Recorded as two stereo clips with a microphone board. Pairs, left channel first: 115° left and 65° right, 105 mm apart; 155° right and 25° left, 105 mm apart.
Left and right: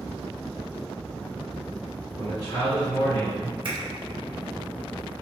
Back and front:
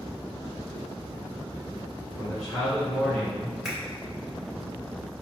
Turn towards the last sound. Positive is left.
turn(degrees=-60)